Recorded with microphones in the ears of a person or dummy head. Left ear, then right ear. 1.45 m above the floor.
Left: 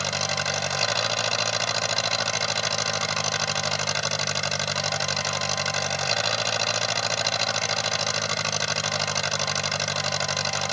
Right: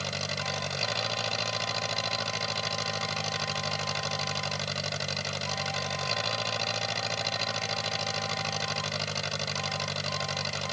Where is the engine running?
20° left (ahead or behind).